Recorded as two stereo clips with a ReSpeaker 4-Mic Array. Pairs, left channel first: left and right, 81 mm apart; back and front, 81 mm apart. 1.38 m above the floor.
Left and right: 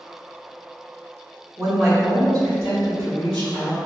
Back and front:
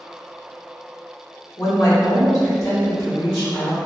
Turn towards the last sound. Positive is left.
turn(degrees=-130)